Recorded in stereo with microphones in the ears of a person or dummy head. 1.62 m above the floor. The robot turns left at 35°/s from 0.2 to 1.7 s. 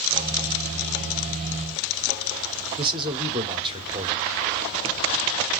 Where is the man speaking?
25° right (ahead or behind), 1.2 m.